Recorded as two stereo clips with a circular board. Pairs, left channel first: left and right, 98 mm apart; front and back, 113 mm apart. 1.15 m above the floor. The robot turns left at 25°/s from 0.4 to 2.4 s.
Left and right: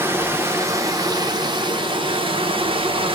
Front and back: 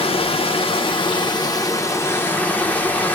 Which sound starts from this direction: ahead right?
Running water, at 0.0 s.